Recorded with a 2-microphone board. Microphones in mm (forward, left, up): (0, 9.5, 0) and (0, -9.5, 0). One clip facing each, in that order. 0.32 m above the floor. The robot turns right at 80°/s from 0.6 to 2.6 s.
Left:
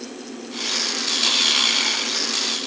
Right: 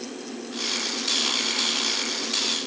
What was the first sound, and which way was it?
Only background noise.